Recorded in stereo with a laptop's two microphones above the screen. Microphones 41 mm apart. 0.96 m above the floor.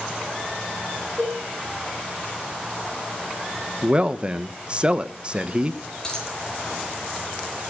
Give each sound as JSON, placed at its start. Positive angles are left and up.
{"t": 1.2, "sound": "a cowbell", "side_deg": 0, "distance_m": 3.5}
{"t": 3.8, "sound": "a man speaking", "side_deg": -25, "distance_m": 0.9}
{"t": 6.0, "sound": "a dropped coin", "side_deg": 15, "distance_m": 8.5}